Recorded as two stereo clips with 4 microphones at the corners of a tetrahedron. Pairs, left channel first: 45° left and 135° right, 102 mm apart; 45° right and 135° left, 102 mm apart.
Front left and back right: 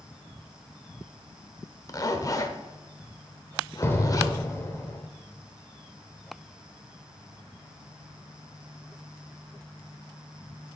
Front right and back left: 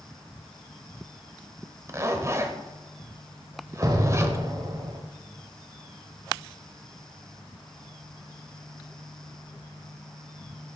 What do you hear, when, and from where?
1.9 s a zipper: 85° left, 0.7 m
3.8 s an explosion: 105° left, 0.9 m